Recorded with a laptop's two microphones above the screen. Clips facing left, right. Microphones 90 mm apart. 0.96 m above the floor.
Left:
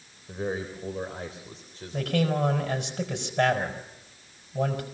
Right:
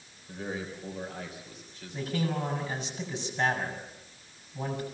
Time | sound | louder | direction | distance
0.3 | a man speaking | left 5 dB | 25° left (ahead or behind) | 3.5 m
1.9 | a man speaking | left 5 dB | 65° left (ahead or behind) | 5.5 m